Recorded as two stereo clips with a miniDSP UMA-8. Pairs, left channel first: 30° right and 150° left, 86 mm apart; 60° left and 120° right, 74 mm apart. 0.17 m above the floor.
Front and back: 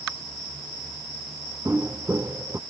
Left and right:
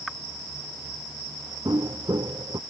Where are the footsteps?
150° right.